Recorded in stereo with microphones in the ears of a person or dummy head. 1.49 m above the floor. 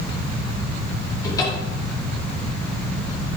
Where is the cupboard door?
25° left (ahead or behind), 4.5 m.